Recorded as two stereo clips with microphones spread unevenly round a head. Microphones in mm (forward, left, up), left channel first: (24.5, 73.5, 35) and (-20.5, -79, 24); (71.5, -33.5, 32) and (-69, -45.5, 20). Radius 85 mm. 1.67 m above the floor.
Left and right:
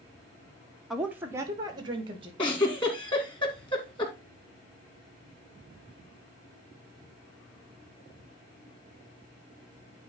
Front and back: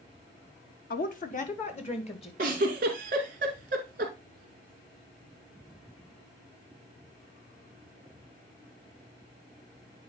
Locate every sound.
0.9 s a woman speaking: 15° right, 1.2 m; by 2.3 s 45° right, 2.5 m
2.4 s a giggle: 135° left, 2 m